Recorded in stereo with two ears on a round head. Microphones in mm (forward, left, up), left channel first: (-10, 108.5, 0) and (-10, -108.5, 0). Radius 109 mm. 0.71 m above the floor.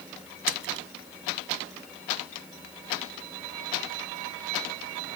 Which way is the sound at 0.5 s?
55° right (ahead or behind).